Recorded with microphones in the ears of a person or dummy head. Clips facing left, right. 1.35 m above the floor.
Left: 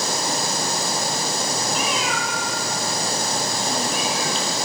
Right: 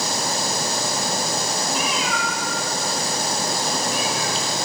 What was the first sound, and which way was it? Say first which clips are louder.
A cat meowing: even; centre (ahead or behind).